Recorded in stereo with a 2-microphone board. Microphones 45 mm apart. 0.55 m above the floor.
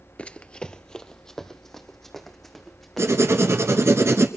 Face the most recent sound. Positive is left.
turn(degrees=-75)  # may be behind; listen again after turning